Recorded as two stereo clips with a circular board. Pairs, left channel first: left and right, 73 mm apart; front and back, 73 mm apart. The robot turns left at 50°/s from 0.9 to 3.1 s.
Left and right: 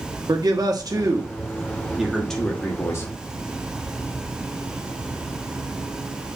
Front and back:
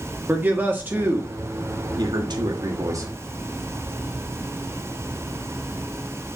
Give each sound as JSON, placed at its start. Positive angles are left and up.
{"t": 0.3, "sound": "a man speaking", "azimuth_deg": -115, "distance_m": 1.4}